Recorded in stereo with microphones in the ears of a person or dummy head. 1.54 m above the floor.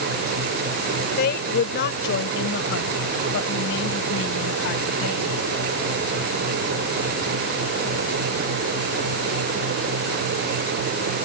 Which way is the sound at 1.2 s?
60° left (ahead or behind).